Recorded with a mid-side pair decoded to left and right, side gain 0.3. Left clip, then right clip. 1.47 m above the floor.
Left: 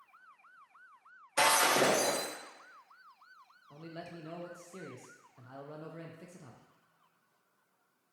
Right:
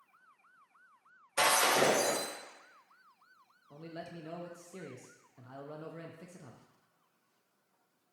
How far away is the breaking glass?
About 1.9 m.